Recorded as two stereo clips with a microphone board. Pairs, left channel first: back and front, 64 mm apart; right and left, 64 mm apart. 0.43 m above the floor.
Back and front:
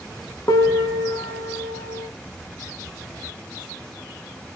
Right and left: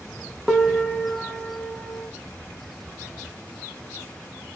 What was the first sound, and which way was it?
A piano, straight behind.